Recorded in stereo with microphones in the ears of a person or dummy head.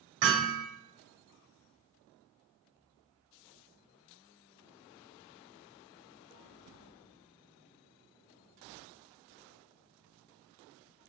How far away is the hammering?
About 1.2 m.